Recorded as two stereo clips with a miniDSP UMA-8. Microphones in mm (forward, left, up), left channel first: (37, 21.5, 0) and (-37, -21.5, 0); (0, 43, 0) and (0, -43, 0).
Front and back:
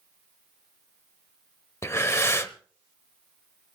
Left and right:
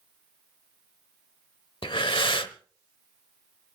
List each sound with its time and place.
1.8 s breathing: 90° left, 1.0 m